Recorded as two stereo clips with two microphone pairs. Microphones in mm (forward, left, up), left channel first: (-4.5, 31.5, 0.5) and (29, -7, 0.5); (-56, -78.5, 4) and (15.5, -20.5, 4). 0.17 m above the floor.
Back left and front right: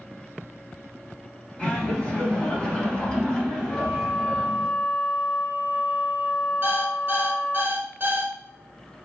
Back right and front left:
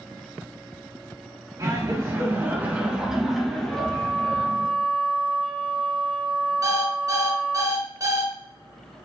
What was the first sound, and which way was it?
Laughter, 70° left.